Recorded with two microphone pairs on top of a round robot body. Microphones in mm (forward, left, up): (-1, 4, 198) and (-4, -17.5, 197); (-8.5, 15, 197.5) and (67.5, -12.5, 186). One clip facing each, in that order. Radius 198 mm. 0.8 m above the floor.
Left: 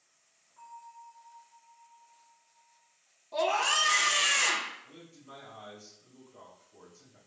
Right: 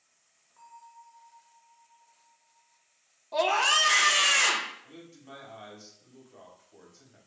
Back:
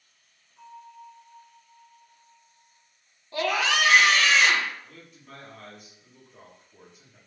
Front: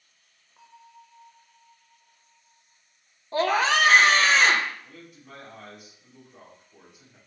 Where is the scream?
35° right, 0.6 m.